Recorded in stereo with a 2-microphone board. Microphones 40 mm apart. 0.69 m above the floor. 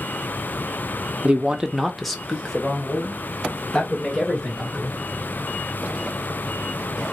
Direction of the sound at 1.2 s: 25° right (ahead or behind).